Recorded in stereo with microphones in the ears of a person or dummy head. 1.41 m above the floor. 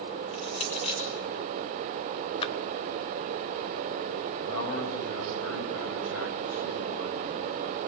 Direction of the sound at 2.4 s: 40° left (ahead or behind).